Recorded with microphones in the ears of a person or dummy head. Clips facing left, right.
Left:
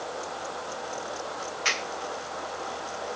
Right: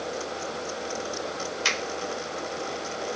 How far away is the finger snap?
About 3 m.